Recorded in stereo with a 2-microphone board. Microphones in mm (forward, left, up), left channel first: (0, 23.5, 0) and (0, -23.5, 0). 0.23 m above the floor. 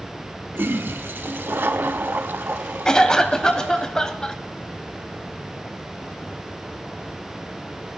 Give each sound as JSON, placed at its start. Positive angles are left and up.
{"t": 0.6, "sound": "a toilet flushing", "side_deg": -50, "distance_m": 0.7}
{"t": 2.9, "sound": "a cough", "side_deg": 15, "distance_m": 1.0}